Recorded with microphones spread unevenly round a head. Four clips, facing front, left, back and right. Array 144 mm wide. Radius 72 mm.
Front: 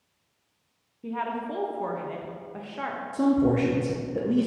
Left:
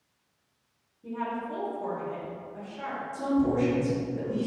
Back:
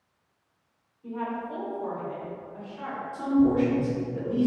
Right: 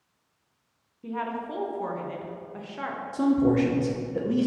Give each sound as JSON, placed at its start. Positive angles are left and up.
{"t": 1.0, "sound": "a woman speaking", "azimuth_deg": -30, "distance_m": 0.9}
{"t": 3.1, "sound": "a man speaking", "azimuth_deg": -40, "distance_m": 0.7}